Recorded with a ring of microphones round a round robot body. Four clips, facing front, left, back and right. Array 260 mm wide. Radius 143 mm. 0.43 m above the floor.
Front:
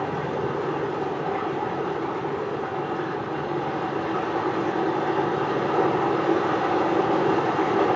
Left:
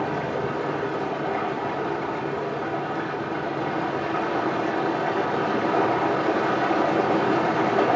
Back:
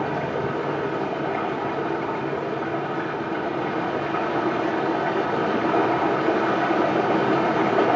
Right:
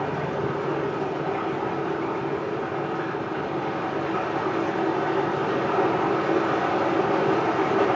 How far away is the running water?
About 9 m.